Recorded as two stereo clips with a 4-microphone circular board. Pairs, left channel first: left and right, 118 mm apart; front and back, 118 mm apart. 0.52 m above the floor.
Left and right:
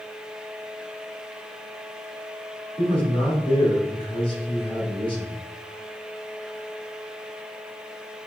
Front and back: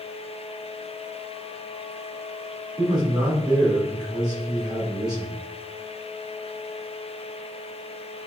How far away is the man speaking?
About 2 m.